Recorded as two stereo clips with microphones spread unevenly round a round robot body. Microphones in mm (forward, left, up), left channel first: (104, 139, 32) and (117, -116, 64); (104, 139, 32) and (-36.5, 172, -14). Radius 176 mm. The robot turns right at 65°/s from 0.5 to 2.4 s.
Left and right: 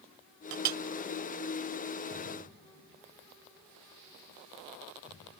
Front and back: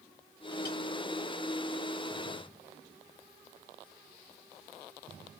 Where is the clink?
70° right; by 0.8 s 50° right.